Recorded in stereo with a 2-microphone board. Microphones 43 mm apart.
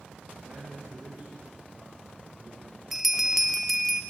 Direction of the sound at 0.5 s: 35° right (ahead or behind).